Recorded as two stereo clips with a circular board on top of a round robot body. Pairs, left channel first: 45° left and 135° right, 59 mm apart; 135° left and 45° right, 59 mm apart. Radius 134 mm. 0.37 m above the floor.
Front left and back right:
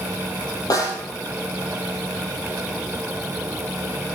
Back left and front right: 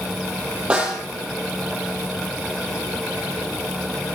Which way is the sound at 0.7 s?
30° left.